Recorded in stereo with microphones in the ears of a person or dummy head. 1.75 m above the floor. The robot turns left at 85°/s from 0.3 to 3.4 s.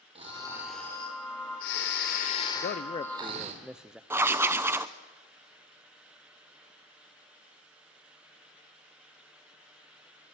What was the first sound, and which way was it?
Snoring, 140° right.